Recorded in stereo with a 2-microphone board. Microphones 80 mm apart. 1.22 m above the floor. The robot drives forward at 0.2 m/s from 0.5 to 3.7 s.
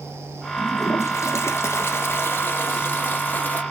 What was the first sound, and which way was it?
A toilet flushing, 40° left (ahead or behind).